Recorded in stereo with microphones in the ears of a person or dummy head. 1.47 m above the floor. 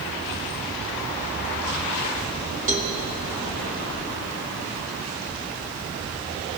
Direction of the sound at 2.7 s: 40° right (ahead or behind).